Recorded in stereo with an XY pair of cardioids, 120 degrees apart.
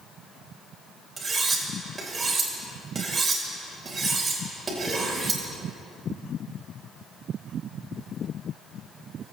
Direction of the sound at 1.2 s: 25° right.